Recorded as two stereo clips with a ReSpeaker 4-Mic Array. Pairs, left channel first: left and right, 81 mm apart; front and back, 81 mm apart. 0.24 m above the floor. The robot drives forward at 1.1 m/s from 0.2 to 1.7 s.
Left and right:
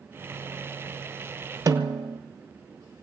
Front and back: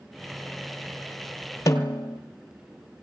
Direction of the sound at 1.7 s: 50° right.